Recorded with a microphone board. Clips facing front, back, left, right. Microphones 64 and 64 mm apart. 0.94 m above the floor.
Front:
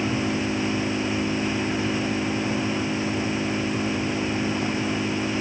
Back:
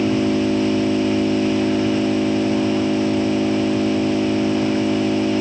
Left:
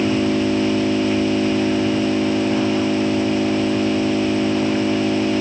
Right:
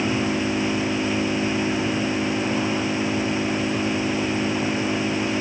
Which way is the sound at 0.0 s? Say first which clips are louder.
Back 7 dB, left 5 dB; 150° left.